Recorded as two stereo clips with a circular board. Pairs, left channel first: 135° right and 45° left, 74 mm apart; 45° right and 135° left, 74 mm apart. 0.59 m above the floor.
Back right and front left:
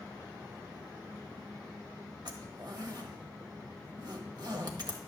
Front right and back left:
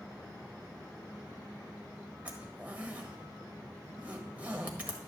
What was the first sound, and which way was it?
A zipper, 65° left.